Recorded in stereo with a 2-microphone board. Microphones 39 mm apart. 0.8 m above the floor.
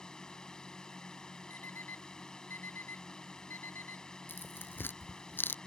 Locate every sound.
0.0 s a drone: 15° left (ahead or behind)
1.5 s an alarm clock: 60° left (ahead or behind)
4.3 s tearing paper: 60° left (ahead or behind)